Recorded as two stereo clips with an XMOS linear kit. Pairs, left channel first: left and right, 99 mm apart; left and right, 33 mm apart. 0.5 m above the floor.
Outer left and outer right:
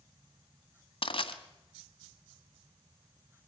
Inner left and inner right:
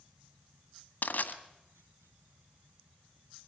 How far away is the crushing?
About 1.7 m.